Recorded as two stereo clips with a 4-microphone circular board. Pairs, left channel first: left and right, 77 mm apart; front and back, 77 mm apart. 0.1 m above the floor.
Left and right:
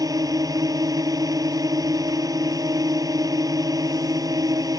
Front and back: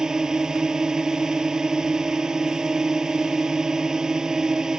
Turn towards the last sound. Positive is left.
turn(degrees=-100)